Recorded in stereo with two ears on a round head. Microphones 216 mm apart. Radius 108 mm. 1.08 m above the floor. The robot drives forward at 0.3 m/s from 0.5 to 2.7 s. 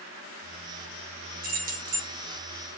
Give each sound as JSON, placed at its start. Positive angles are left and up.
{"t": 1.4, "sound": "keys jangling", "side_deg": -40, "distance_m": 0.8}